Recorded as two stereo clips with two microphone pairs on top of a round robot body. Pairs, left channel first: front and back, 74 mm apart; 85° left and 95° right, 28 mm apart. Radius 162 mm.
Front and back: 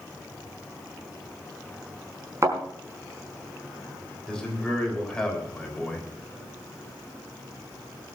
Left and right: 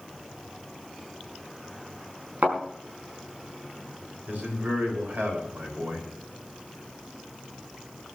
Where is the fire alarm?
I don't hear a fire alarm.